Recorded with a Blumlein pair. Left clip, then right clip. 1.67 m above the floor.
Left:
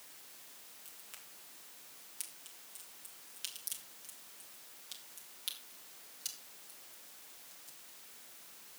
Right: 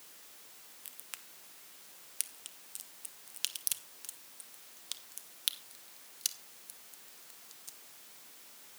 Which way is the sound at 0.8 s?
25° right.